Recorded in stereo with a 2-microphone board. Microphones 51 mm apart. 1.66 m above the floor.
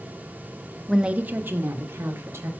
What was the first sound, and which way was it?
A woman speaking, centre (ahead or behind).